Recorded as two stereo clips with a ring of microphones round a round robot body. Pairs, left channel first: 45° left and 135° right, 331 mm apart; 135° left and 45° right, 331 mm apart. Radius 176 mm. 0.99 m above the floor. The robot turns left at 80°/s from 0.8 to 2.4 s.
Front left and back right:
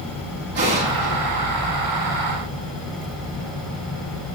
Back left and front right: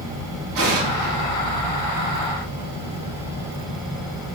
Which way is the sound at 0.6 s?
70° right.